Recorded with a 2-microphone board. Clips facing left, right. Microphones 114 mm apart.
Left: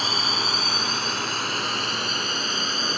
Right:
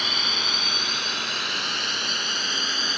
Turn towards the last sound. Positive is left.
turn(degrees=40)  # may be behind; listen again after turning